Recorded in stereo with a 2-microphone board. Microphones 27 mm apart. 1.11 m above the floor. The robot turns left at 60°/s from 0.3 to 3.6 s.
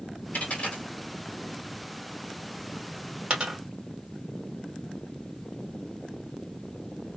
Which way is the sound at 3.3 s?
55° right (ahead or behind).